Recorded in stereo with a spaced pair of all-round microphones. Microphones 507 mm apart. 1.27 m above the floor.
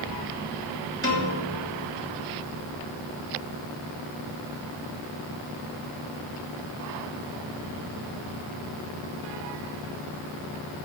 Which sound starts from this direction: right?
A piano, at 1.0 s.